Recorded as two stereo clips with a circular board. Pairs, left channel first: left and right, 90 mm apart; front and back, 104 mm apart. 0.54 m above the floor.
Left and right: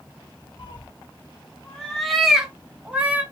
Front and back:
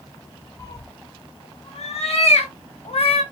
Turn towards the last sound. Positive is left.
turn(degrees=-15)